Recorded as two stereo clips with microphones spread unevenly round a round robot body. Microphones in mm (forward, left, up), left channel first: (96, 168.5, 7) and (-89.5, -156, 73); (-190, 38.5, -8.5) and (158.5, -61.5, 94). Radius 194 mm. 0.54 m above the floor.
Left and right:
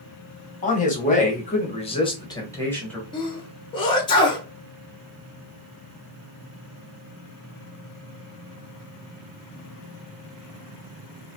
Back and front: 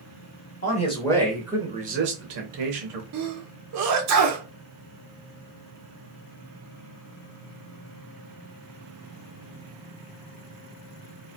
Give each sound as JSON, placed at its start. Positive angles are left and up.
{"t": 0.6, "sound": "a man speaking", "azimuth_deg": 115, "distance_m": 1.2}
{"t": 3.1, "sound": "a sneeze", "azimuth_deg": 15, "distance_m": 0.7}